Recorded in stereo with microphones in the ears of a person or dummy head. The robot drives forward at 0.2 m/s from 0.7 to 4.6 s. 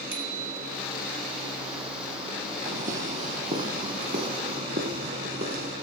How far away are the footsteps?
About 3 m.